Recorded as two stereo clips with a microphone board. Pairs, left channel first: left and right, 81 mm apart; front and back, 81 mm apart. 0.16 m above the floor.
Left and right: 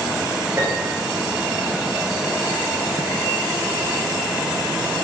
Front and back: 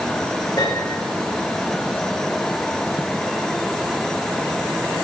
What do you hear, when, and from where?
0.6 s a piano: 30° right, 8.5 m